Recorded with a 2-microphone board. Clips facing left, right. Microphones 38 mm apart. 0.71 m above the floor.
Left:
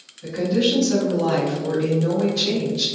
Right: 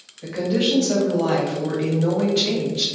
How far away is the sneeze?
I don't hear a sneeze.